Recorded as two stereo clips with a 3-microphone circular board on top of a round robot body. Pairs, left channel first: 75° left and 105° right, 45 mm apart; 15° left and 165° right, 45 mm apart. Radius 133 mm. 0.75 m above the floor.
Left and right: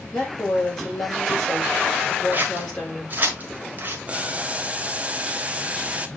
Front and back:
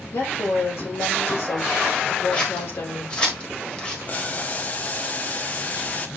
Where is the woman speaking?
Straight ahead, 5.5 m.